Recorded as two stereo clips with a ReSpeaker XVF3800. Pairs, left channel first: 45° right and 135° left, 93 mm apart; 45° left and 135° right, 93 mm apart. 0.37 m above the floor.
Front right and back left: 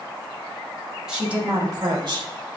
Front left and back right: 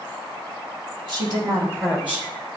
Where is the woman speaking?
145° right, 1.4 m; by 2.3 s 140° left, 1.5 m.